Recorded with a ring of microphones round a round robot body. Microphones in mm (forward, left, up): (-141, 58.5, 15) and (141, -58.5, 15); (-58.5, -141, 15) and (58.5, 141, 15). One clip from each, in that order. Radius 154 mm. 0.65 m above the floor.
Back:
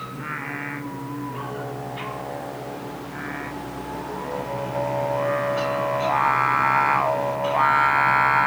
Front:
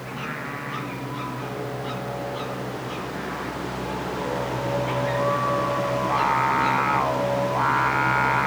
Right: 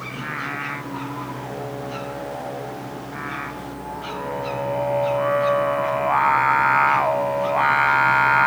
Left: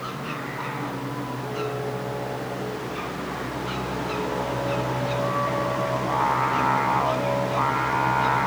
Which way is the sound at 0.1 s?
130° right.